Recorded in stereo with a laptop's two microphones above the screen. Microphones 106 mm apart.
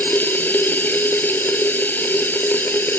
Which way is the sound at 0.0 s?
20° left (ahead or behind).